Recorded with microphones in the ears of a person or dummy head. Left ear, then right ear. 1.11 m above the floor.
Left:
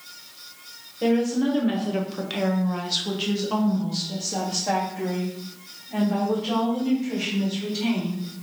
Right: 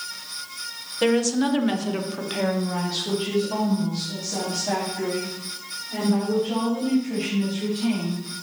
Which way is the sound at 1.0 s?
45° right (ahead or behind).